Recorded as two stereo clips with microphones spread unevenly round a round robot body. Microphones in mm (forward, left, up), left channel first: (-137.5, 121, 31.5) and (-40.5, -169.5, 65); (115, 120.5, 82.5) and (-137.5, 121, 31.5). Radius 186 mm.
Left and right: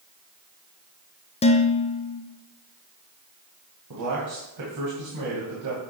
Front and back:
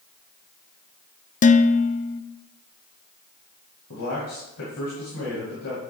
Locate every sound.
1.4 s dishes clattering: 65° left, 0.5 m
3.9 s a man speaking: 40° right, 2.5 m